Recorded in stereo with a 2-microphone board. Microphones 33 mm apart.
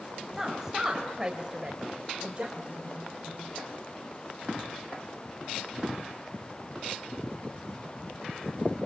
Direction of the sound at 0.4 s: 10° right (ahead or behind).